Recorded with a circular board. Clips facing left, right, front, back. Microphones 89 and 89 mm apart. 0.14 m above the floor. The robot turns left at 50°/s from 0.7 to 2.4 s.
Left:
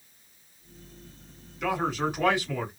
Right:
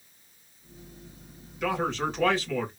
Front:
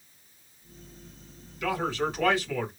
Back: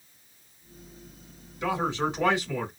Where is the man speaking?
175° left, 1.4 m; by 2.7 s 140° left, 1.4 m.